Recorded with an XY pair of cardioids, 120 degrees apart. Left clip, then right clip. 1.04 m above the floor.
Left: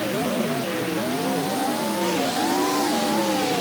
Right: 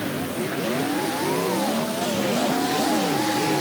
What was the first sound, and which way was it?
Only background noise.